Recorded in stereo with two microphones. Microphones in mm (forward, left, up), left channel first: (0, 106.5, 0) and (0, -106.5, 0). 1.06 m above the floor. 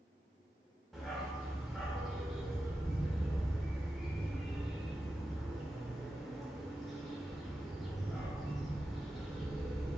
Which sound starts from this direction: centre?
A dog barking, at 0.9 s.